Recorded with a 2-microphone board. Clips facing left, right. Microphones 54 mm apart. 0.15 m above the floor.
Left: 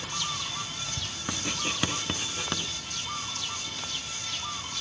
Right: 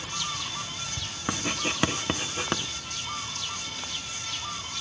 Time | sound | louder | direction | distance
1.3 | writing | right 3 dB | 25° right (ahead or behind) | 0.6 m